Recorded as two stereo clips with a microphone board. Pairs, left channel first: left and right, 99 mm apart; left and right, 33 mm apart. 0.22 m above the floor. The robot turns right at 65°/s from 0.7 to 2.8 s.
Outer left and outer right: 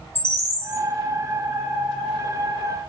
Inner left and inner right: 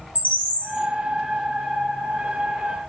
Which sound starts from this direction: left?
A bird, at 0.1 s.